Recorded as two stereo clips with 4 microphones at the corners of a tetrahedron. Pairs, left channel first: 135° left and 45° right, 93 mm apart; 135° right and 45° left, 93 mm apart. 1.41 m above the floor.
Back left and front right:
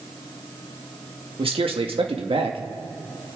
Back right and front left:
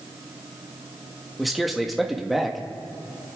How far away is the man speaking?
About 1.7 m.